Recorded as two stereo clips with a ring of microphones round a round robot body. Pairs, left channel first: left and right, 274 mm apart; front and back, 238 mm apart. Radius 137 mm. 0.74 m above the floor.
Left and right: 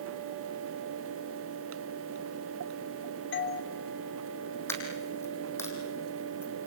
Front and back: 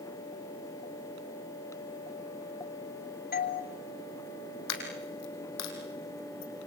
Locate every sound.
3.3 s a doorbell: 45° left, 3.5 m
4.7 s a dropped coin: 10° left, 5 m